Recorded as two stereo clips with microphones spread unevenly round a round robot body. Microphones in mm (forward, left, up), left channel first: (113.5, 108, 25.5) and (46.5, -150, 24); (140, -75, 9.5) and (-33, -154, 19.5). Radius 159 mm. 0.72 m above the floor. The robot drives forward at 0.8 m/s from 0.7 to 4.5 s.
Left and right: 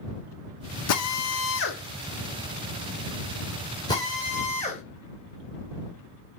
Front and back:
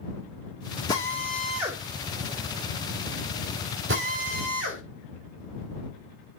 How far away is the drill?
About 1.5 m.